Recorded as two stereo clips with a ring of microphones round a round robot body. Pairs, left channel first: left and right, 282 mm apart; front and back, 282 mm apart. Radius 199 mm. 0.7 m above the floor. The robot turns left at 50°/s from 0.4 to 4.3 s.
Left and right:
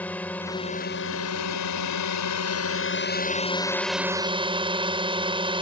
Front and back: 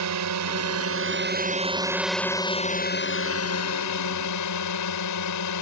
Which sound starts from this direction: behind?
A drone, at 0.0 s.